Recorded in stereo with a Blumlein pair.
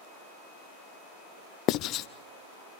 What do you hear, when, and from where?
1.7 s writing: 35° left, 0.5 m